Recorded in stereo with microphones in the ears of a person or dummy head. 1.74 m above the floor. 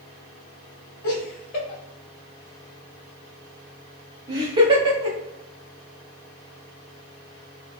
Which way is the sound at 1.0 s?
40° left (ahead or behind).